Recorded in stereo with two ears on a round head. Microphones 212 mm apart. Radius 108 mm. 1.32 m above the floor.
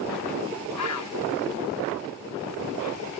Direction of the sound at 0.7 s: 70° left (ahead or behind).